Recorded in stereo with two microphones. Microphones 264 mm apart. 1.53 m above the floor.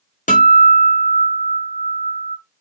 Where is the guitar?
30° left (ahead or behind), 0.6 m.